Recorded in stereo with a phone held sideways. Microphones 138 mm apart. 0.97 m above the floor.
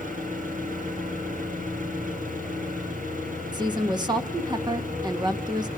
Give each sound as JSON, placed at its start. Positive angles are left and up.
{"t": 0.0, "sound": "an engine running", "side_deg": -75, "distance_m": 6.5}
{"t": 3.5, "sound": "a woman speaking", "side_deg": -30, "distance_m": 1.7}